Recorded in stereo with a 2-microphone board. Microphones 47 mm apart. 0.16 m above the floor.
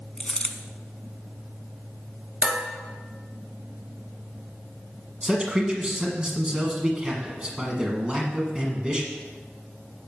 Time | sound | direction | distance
0.2 | a dropped coin | 20° left (ahead or behind) | 0.7 m
2.4 | dishes clattering | 30° right (ahead or behind) | 2 m
5.2 | a man speaking | 25° right (ahead or behind) | 1.4 m